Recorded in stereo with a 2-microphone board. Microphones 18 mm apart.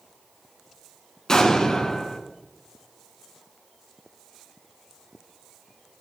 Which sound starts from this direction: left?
An explosion, at 1.3 s.